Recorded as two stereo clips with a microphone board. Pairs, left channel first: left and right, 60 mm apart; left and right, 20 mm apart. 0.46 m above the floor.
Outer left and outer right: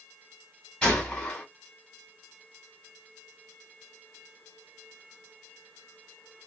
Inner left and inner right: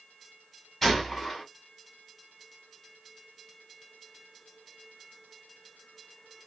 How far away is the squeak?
No squeak in this recording.